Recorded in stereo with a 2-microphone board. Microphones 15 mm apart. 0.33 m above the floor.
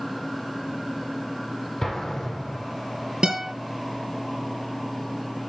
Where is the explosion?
35° left (ahead or behind), 6 m.